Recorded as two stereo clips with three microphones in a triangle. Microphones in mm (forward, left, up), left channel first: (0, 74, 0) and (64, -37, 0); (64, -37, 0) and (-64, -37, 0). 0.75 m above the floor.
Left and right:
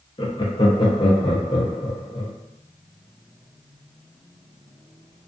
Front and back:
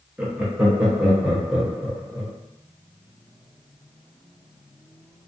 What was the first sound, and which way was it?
Laughter, 105° left.